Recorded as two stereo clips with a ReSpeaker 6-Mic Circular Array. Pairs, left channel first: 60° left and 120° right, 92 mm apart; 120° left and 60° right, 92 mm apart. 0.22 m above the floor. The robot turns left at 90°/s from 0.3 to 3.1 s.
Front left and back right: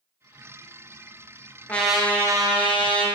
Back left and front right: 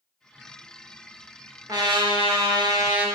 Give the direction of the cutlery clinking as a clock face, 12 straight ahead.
I don't hear cutlery clinking.